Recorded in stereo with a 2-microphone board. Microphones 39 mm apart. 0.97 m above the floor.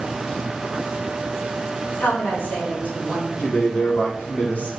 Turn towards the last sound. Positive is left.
turn(degrees=50)  # may be behind; listen again after turning